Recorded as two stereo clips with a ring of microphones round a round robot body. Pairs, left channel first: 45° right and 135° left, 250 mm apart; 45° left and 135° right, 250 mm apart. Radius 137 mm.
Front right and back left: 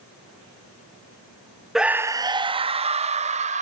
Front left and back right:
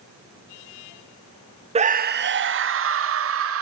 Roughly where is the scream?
Behind right.